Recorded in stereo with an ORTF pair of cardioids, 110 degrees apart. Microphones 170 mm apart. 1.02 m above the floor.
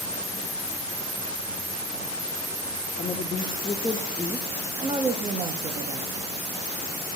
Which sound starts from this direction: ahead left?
A woman speaking, at 3.0 s.